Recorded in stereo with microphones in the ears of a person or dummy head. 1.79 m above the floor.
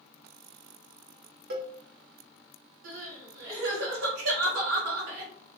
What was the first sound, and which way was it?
A cowbell, 50° right (ahead or behind).